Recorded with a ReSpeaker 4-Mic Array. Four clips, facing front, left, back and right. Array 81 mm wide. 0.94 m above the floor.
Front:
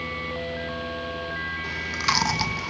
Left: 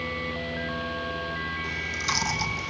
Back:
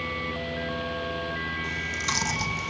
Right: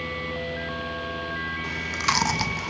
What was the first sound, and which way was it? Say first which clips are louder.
Chewing: right 4 dB, front 4 dB; 60° right.